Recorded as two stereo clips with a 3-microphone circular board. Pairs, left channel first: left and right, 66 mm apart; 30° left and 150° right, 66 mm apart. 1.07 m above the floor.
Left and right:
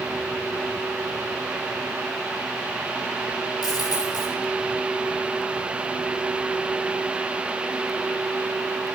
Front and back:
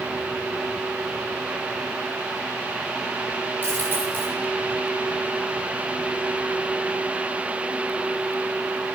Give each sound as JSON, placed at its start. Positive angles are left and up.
{"t": 3.6, "sound": "a dropped coin", "azimuth_deg": 90, "distance_m": 7.0}